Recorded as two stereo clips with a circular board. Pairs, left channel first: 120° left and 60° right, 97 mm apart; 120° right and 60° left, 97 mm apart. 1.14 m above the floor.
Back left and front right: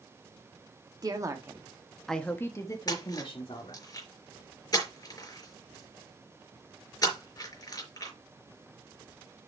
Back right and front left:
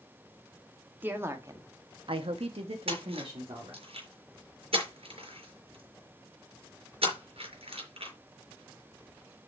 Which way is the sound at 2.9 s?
70° left.